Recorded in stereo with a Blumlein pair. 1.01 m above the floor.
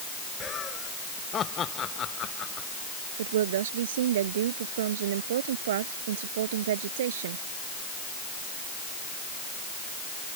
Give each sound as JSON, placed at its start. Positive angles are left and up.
{"t": 0.4, "sound": "laughter", "azimuth_deg": 25}
{"t": 3.2, "sound": "a woman speaking", "azimuth_deg": -60}